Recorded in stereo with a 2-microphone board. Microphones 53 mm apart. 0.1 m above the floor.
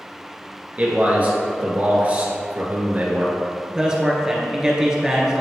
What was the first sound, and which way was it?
A man speaking, 30° right (ahead or behind).